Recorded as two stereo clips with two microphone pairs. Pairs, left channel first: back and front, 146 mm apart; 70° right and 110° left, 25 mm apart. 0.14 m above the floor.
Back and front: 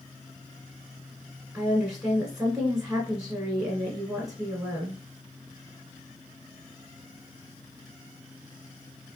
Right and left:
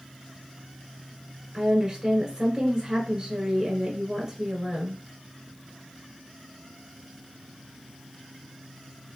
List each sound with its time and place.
1.5 s a woman speaking: 80° left, 1.1 m